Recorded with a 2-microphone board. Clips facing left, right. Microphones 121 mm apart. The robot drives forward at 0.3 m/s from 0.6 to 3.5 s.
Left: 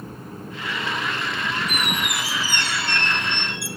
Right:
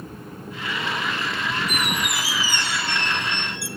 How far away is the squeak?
About 3 m.